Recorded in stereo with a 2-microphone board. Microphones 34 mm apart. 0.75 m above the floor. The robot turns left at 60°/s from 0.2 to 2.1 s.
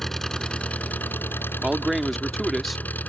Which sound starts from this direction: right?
A man speaking, at 1.6 s.